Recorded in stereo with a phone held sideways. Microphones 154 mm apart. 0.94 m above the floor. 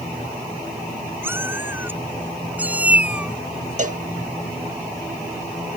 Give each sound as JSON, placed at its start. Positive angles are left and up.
{"t": 1.2, "sound": "a cat meowing", "side_deg": -15}
{"t": 3.8, "sound": "a cowbell", "side_deg": -50}